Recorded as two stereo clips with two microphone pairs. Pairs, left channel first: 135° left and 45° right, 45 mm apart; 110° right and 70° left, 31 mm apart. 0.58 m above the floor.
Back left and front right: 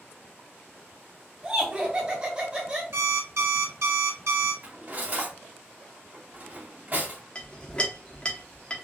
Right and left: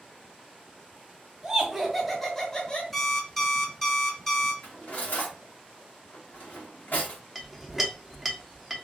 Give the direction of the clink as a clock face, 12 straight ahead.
7 o'clock.